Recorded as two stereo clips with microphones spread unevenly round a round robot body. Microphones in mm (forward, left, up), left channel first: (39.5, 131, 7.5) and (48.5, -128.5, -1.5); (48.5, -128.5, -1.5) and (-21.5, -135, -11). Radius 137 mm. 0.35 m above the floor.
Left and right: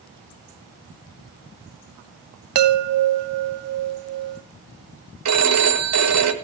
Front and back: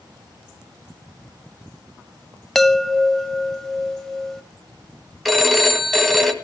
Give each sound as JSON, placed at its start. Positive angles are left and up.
{"t": 2.5, "sound": "a chime", "azimuth_deg": -85, "distance_m": 1.0}
{"t": 5.2, "sound": "a phone ringing", "azimuth_deg": -85, "distance_m": 1.9}